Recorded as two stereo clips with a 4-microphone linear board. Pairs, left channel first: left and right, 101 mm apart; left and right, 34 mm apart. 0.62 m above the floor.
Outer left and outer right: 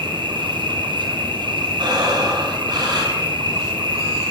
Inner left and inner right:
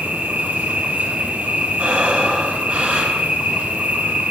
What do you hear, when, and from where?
0.0 s an insect: 60° right (ahead or behind), 1.4 m
1.8 s breathing: 55° right (ahead or behind), 2.5 m